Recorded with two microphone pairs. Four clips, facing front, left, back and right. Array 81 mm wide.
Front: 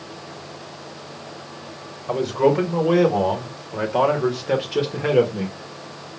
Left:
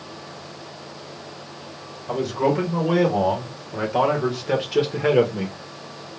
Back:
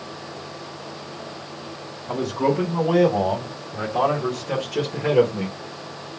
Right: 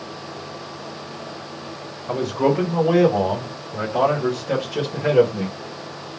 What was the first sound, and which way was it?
A man speaking, 5° right.